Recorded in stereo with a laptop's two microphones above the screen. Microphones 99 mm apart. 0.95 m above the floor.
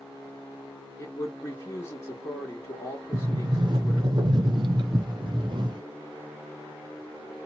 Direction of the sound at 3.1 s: 50° right (ahead or behind).